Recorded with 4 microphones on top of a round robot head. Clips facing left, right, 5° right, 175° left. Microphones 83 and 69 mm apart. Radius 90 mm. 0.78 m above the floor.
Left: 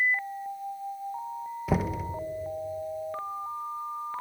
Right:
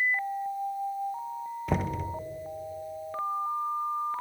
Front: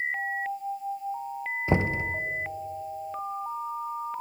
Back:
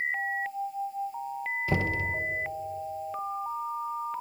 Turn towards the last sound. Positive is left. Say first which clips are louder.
# left 2 dB, front 4 dB
turn(degrees=10)